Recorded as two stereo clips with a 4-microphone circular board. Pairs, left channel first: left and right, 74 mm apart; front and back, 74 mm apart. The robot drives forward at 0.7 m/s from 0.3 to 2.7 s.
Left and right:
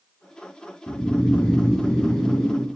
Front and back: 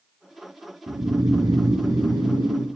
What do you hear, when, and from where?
0.9 s snoring: 160° left, 1.6 m; by 2.7 s 170° left, 2.5 m